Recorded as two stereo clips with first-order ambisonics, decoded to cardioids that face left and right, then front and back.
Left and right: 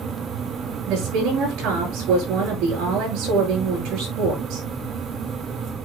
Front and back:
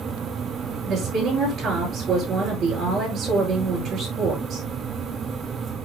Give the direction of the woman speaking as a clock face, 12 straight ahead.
4 o'clock.